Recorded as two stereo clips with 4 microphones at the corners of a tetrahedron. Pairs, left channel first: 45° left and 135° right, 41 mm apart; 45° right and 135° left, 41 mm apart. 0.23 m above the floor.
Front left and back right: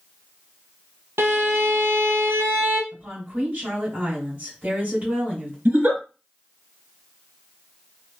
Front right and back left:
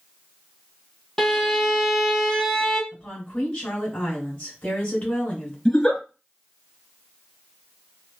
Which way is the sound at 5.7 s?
105° right.